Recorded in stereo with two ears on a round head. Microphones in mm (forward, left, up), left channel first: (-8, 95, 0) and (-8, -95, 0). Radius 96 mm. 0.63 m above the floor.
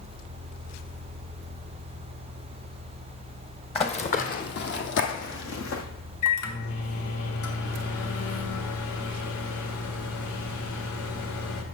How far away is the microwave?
About 1.5 m.